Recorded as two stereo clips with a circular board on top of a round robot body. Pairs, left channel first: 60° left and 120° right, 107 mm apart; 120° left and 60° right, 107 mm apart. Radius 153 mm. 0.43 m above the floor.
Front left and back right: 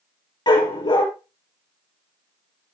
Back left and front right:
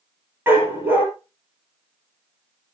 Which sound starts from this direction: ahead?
A dog barking, at 0.5 s.